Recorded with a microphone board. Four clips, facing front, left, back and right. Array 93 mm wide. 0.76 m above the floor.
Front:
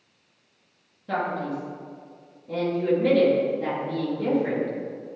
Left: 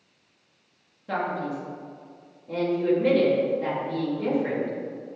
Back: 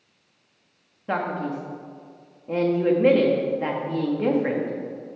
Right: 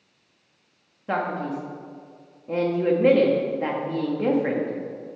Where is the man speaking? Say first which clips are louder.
Right 2 dB, back 1 dB; 145° right, 1.4 m.